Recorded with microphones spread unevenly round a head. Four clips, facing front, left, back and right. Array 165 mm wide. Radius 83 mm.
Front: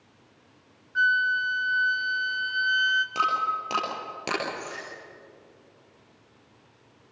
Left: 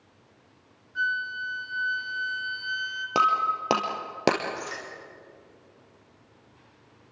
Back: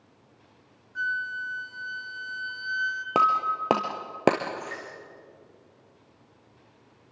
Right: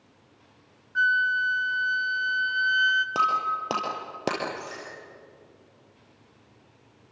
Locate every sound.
0.9 s a flute: 45° right, 1.5 m
3.1 s breaking glass: 160° left, 2 m